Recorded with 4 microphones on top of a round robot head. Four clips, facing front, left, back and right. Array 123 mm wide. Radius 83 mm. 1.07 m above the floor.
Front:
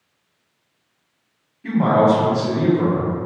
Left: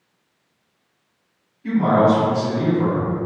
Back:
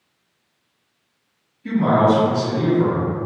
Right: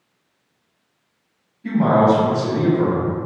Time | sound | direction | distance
1.6 | a man speaking | 30° right | 1.3 m